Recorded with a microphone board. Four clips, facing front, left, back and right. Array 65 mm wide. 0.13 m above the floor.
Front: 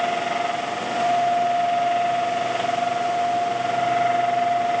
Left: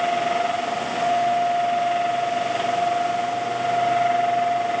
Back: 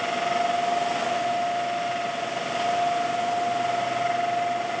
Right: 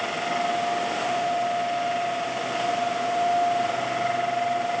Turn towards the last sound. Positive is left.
No sound to turn to.